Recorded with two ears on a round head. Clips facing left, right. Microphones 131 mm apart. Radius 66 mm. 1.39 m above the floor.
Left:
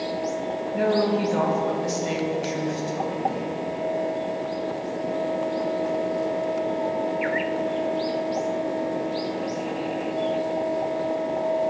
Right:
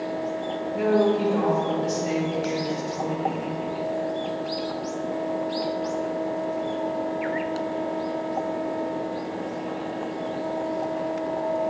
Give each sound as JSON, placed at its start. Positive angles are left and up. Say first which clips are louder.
{"t": 0.7, "sound": "a woman speaking", "louder": "right 1 dB", "side_deg": 60, "distance_m": 2.5}